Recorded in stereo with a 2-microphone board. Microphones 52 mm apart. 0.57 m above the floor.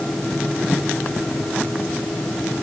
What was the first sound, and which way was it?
Only background noise.